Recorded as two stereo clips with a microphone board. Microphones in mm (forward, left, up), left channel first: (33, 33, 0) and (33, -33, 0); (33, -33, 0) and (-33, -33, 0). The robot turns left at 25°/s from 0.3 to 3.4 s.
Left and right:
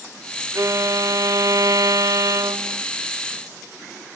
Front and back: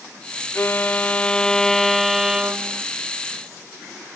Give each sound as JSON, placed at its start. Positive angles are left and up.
{"t": 0.6, "sound": "a violin", "azimuth_deg": -55}